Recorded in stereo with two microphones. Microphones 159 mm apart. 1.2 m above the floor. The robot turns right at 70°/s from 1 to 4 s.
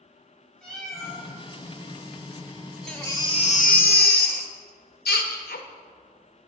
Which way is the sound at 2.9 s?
5° left.